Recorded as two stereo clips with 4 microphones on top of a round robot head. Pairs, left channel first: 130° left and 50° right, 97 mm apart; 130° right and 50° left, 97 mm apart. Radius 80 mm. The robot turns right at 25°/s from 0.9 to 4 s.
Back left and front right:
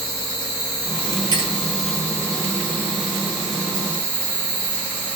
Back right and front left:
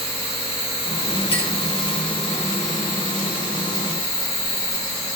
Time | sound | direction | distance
0.0 | an insect | 150° right | 5 m
1.3 | a clink | 100° right | 2.5 m